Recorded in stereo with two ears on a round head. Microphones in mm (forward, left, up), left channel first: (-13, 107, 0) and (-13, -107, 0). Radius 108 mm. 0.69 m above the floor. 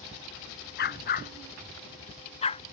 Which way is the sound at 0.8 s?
40° left (ahead or behind).